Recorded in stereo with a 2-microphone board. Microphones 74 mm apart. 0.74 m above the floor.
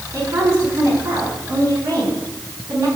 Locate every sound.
0.1 s a woman speaking: 50° right (ahead or behind), 8 m